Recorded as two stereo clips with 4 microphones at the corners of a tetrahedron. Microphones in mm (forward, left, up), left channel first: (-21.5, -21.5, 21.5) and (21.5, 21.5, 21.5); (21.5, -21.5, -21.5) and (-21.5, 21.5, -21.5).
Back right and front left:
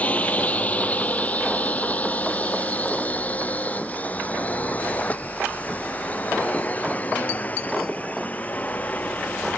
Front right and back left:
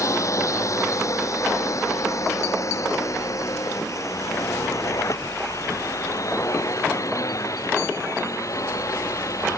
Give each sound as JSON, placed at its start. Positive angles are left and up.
{"t": 0.0, "sound": "a drone", "azimuth_deg": -75}